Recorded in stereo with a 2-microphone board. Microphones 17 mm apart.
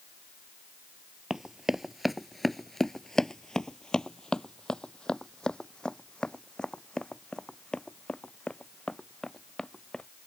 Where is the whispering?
I don't hear whispering.